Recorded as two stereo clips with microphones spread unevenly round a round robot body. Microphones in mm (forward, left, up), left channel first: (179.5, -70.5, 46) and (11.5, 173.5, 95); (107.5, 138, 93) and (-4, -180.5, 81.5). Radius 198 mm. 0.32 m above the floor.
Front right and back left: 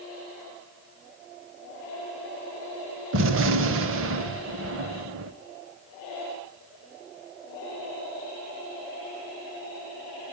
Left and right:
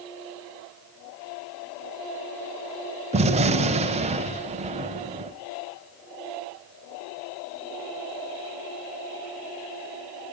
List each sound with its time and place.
3.1 s a gunshot: straight behind, 0.8 m